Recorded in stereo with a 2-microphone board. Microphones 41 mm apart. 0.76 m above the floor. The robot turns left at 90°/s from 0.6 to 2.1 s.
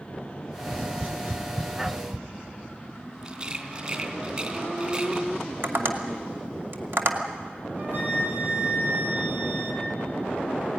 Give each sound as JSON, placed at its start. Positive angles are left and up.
{"t": 0.6, "sound": "tapping", "side_deg": 70, "distance_m": 1.5}
{"t": 3.2, "sound": "a rattle", "side_deg": -30, "distance_m": 2.5}
{"t": 5.6, "sound": "tapping", "side_deg": -65, "distance_m": 1.9}
{"t": 7.8, "sound": "a flute", "side_deg": -65, "distance_m": 4.5}